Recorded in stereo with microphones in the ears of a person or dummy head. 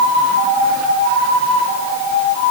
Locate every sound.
Only background noise.